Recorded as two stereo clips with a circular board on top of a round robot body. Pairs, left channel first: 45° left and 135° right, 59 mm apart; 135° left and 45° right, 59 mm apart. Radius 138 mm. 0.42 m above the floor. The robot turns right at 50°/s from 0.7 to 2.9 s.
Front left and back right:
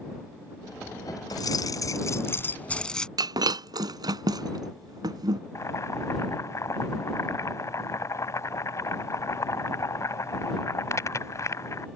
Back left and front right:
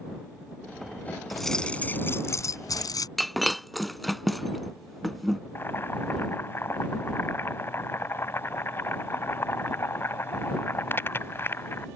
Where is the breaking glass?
135° right.